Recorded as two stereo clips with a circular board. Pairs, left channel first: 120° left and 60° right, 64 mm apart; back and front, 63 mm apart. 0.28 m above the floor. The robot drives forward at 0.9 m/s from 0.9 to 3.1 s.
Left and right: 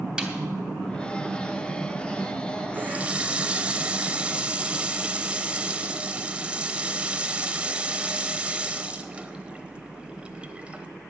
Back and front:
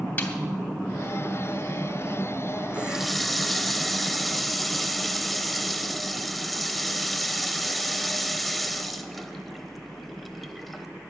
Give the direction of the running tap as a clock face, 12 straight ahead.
2 o'clock.